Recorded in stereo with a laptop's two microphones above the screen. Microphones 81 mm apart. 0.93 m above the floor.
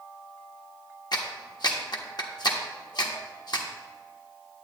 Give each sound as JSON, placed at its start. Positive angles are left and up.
{"t": 1.1, "sound": "a clap", "side_deg": 55, "distance_m": 1.1}